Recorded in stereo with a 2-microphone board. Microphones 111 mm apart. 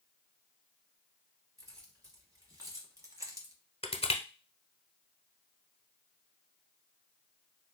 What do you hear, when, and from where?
1.6 s keys jangling: 35° right (ahead or behind), 1.8 m; by 3.5 s 30° right (ahead or behind), 0.8 m
3.8 s crushing: 70° left (ahead or behind), 0.9 m